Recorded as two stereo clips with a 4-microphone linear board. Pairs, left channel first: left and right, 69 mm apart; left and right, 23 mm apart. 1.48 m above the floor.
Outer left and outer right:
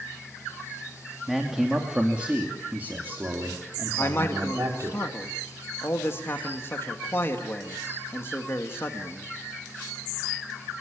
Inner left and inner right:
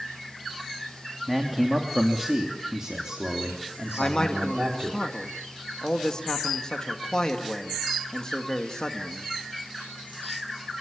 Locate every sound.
1.3 s a man speaking: centre (ahead or behind), 3 m; by 5.0 s 50° right (ahead or behind), 4 m
4.0 s a man speaking: 35° left (ahead or behind), 2 m